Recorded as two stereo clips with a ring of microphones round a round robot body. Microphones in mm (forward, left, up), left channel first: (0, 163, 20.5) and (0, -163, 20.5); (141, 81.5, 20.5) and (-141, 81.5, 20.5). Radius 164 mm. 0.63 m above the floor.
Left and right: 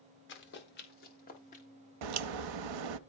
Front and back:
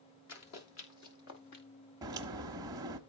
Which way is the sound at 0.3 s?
35° left.